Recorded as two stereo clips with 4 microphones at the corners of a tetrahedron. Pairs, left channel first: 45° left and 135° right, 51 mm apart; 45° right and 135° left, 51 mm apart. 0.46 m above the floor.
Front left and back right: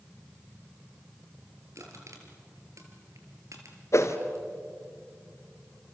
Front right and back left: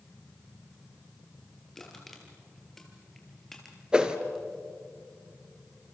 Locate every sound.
1.8 s crushing: 130° right, 4 m
3.9 s a whoosh: 65° left, 1.6 m